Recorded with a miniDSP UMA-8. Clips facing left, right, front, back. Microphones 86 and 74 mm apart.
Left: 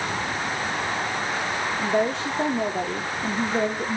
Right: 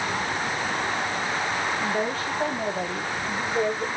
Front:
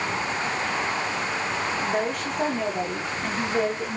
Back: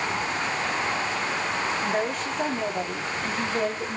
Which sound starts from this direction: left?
A woman speaking, at 1.8 s.